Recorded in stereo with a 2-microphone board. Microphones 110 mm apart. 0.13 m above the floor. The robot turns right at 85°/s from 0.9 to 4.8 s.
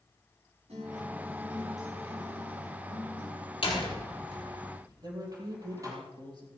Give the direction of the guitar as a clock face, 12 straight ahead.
3 o'clock.